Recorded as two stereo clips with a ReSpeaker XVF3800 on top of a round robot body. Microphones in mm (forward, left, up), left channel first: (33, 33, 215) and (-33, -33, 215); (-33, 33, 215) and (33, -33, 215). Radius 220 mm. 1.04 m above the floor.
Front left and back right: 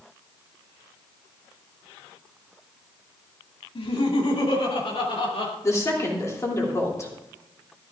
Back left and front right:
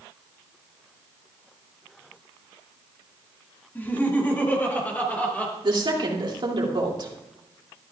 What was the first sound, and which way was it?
Laughter, 65° left.